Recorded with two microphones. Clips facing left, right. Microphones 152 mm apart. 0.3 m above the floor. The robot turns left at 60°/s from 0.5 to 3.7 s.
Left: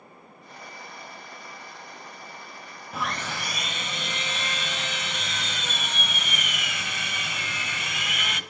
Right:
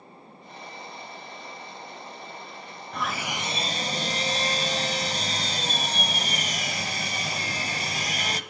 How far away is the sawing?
About 0.7 m.